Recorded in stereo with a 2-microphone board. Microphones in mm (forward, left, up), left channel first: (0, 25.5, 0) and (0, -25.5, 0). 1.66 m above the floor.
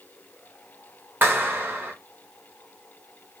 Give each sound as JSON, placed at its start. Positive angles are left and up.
{"t": 1.2, "sound": "a clap", "side_deg": -40, "distance_m": 1.4}